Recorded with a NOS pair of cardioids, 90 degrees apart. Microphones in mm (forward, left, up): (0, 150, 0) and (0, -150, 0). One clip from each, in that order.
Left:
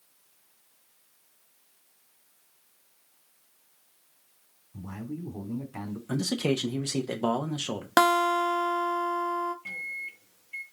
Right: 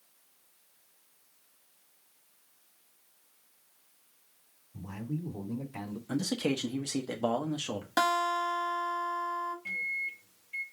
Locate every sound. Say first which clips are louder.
4.7 s a man speaking: left 1 dB; 5° left, 2.5 m
6.1 s a man speaking: left 3 dB; 10° left, 0.8 m
8.0 s a guitar: left 6 dB; 45° left, 0.9 m
9.7 s a microwave: right 2 dB; 15° left, 1.1 m